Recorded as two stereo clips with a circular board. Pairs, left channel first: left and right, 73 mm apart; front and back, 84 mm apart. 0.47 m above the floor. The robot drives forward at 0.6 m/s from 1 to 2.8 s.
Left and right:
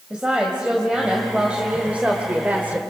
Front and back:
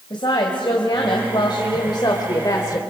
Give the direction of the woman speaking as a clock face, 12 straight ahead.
12 o'clock.